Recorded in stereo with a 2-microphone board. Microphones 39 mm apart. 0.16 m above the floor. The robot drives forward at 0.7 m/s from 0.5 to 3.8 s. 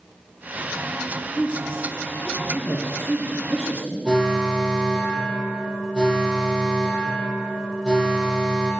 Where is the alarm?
20° left (ahead or behind), 3.5 m.